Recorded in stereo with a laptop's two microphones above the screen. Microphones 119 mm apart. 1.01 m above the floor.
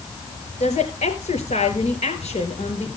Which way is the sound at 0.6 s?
60° left (ahead or behind).